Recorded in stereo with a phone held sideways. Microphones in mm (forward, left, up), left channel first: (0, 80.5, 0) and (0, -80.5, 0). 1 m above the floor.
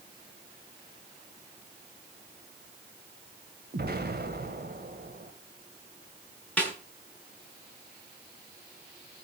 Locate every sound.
3.7 s an explosion: 70° right (ahead or behind), 2.5 m
6.6 s a snare drum: 10° left (ahead or behind), 7 m